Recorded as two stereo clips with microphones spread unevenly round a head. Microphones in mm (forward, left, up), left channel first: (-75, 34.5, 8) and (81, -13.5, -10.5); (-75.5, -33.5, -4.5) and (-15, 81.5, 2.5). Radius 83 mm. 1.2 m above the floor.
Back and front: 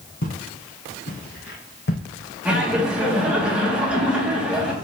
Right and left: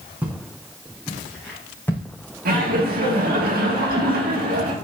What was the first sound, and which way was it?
Footsteps, 140° left.